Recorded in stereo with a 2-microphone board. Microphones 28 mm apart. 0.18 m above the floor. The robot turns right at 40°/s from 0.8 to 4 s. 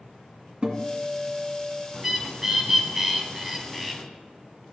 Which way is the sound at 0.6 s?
115° right.